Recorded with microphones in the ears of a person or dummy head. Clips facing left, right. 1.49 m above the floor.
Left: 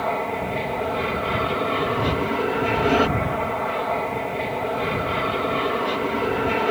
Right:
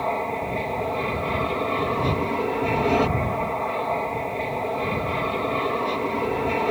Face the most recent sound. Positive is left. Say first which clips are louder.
# left 1 dB
turn(degrees=10)  # may be behind; listen again after turning